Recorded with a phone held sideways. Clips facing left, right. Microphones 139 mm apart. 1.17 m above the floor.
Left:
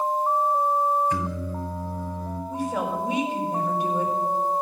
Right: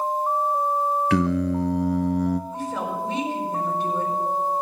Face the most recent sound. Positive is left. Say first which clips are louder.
# left 1 dB
turn(degrees=10)  # may be behind; listen again after turning